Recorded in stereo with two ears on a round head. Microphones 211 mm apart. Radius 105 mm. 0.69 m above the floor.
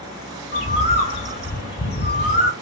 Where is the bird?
45° left (ahead or behind), 1.3 m.